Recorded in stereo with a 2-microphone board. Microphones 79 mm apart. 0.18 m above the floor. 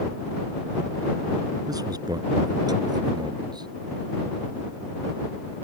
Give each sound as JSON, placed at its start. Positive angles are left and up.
{"t": 1.7, "sound": "a man speaking", "side_deg": -55}